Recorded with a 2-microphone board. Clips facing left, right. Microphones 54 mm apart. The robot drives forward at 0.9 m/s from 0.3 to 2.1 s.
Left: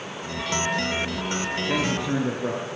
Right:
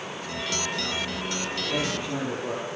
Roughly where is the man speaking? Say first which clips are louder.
Left 4 dB; left.